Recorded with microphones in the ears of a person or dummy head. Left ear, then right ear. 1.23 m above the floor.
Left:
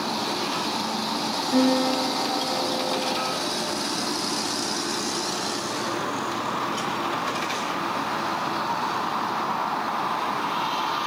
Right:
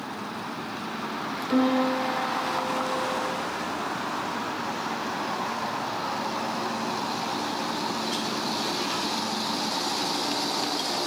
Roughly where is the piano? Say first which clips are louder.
Left 1 dB; right.